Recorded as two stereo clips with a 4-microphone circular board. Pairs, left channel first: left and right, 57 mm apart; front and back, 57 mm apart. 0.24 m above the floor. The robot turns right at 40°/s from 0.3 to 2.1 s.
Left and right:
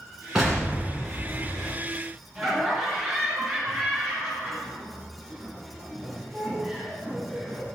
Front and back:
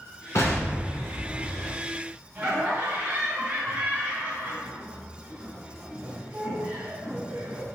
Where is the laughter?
175° left, 1.5 m.